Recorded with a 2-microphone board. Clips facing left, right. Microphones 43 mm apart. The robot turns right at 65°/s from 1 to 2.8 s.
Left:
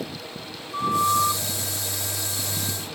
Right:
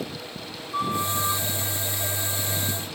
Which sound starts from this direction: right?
A flute, at 0.7 s.